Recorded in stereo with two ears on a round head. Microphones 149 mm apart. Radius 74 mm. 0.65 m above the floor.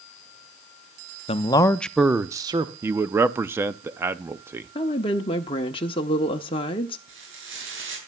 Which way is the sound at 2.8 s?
15° right (ahead or behind).